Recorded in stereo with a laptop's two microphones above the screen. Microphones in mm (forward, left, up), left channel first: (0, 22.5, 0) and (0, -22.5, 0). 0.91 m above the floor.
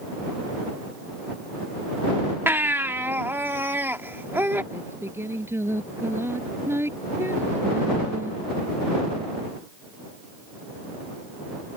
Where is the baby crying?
55° right (ahead or behind).